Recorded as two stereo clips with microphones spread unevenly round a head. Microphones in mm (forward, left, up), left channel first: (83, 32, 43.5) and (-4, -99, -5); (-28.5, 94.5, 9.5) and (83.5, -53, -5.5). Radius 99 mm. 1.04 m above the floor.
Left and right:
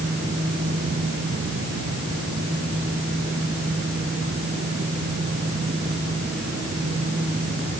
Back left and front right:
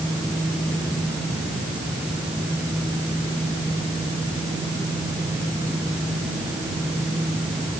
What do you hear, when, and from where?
Only background noise.